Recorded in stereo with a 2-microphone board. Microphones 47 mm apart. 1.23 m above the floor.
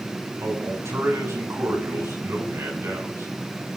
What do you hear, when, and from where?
0.4 s a man speaking: 90° right, 7.5 m; by 3.7 s 85° right, 9 m